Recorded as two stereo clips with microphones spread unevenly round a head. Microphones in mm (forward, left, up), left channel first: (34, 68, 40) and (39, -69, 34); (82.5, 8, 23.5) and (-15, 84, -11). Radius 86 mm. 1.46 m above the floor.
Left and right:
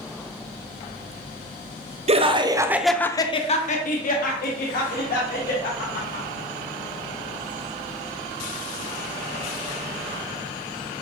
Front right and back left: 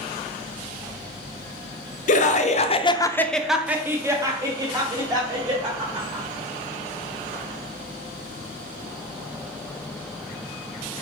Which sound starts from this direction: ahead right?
Laughter, at 2.1 s.